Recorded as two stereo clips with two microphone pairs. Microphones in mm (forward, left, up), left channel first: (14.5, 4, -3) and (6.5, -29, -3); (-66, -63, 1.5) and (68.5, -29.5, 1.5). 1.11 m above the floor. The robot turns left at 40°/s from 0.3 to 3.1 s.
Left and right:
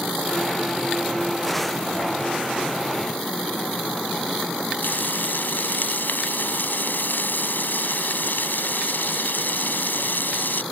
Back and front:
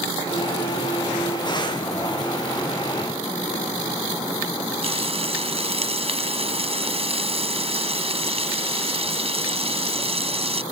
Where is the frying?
60° left.